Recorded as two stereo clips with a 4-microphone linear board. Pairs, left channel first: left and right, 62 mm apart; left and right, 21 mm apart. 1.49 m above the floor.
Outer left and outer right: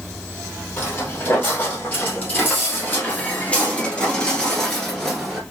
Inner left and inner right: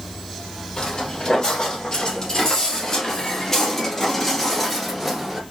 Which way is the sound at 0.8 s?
35° left (ahead or behind).